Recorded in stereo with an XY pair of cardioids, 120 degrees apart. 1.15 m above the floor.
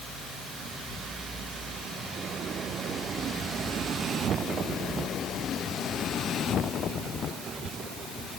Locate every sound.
Only background noise.